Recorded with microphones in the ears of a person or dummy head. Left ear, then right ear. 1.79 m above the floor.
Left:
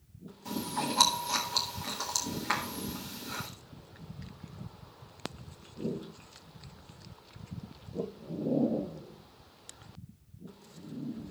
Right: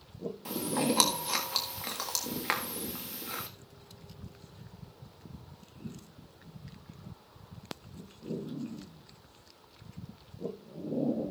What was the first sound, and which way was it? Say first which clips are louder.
Chewing: right 2 dB; 50° right (ahead or behind).